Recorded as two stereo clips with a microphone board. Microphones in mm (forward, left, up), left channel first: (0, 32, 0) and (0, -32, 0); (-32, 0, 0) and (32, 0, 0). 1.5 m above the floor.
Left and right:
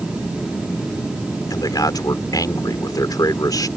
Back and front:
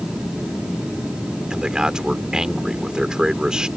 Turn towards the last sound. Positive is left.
turn(degrees=80)